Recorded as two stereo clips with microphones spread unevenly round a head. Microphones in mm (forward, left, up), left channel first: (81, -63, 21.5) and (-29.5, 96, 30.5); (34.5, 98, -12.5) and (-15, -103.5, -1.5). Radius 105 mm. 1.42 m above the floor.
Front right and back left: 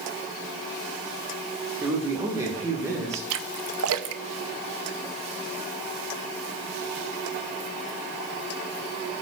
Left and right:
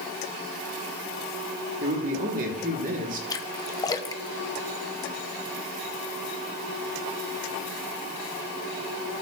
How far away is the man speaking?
About 1.6 m.